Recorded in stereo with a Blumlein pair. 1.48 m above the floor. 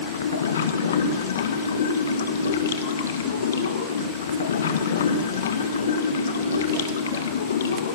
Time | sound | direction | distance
0.0 | running water | 65° left | 1.9 m